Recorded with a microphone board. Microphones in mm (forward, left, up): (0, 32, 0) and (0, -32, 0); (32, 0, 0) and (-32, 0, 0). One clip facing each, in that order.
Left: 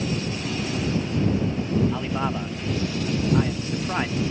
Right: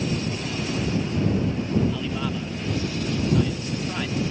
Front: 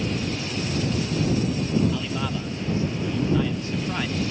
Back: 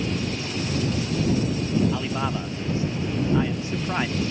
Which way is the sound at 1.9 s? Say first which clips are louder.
Left 2 dB, back 1 dB; 125° left.